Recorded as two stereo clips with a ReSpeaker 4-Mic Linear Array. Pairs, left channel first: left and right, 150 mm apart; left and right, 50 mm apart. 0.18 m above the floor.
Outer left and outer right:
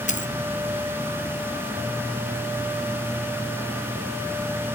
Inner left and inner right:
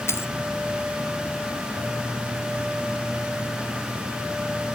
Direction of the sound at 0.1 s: 55° left (ahead or behind).